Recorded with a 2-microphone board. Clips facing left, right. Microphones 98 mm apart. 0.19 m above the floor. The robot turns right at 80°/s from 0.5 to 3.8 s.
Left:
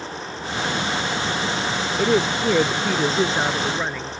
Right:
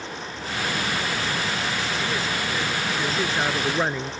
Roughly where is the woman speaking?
Ahead left.